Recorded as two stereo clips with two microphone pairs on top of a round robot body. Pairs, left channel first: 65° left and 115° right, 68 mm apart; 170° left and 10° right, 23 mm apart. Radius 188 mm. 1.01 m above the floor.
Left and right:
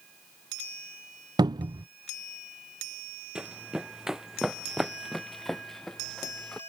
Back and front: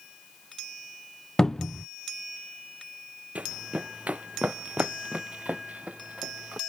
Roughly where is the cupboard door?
Behind right.